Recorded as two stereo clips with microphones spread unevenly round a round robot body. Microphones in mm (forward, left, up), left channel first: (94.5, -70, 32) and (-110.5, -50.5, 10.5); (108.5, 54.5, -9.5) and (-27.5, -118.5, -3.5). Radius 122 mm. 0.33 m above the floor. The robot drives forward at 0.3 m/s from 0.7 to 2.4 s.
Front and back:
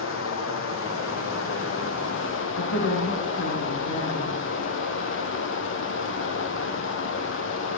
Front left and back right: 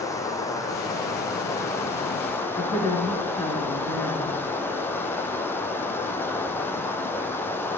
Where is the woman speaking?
25° right, 4.5 m.